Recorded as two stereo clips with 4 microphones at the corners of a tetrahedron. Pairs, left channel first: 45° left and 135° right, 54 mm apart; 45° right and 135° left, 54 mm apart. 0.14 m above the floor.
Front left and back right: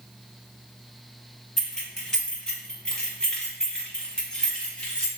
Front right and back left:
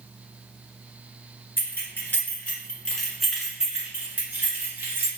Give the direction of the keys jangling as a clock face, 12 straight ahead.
1 o'clock.